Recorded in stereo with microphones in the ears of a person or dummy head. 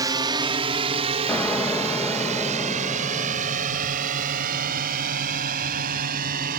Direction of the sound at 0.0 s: 20° right (ahead or behind).